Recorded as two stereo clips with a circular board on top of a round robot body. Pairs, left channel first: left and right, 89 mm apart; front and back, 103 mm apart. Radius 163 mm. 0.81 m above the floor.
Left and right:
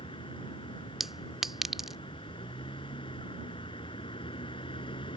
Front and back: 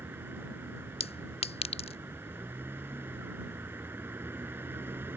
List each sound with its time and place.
0.0 s a vehicle: 110° left
1.0 s a clink: 5° right